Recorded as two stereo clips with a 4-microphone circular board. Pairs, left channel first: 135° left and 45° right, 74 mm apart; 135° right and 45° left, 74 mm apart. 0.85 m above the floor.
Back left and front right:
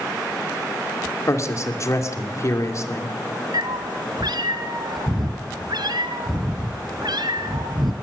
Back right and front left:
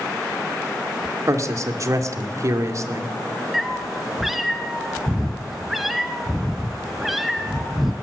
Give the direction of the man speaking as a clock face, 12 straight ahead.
9 o'clock.